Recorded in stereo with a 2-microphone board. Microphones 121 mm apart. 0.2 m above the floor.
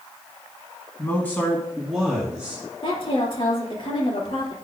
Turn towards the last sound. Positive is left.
turn(degrees=40)  # may be behind; listen again after turning